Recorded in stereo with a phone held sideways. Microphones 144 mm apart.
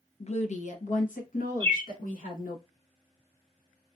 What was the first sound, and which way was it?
A woman speaking, 50° left (ahead or behind).